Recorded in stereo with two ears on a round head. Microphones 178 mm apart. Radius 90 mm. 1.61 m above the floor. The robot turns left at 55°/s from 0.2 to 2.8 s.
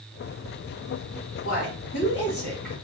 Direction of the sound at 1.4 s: 70° left.